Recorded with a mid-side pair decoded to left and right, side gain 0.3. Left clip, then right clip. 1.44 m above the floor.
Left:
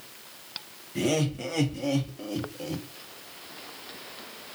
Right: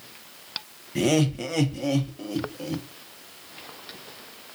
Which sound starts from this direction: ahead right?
Laughter, at 0.9 s.